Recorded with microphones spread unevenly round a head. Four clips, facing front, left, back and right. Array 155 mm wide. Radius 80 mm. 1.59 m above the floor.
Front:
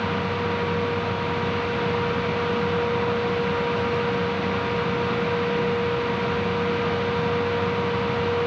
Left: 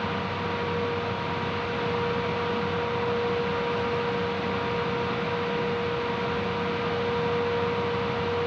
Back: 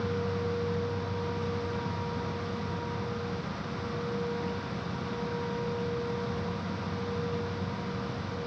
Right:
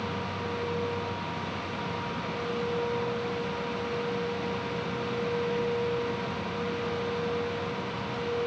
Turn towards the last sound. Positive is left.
No sound to turn to.